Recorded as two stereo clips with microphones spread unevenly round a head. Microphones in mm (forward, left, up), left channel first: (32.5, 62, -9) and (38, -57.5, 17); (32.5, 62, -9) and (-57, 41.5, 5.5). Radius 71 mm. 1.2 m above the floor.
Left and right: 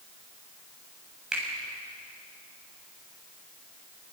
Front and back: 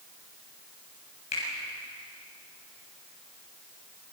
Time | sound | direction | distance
1.3 | a finger snap | 5° right | 8.5 m